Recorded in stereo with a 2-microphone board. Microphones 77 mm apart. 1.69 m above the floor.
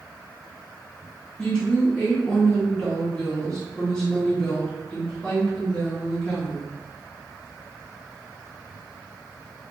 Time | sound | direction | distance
1.4 | a woman speaking | 10° left (ahead or behind) | 1.3 m